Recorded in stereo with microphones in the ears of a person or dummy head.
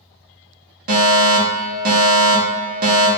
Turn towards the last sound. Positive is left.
turn(degrees=-50)  # may be behind; listen again after turning